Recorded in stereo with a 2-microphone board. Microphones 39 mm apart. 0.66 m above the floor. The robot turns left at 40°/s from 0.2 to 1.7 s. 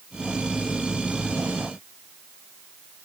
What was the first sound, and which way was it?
Only background noise.